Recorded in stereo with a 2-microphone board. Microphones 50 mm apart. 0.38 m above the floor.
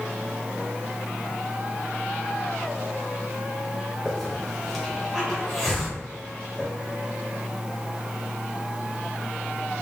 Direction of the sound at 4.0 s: 5° left (ahead or behind).